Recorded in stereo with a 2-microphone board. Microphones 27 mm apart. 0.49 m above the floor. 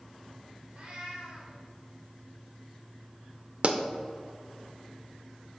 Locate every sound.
0.7 s a cat meowing: 40° right (ahead or behind), 2.5 m
3.6 s a pop: 50° right (ahead or behind), 0.6 m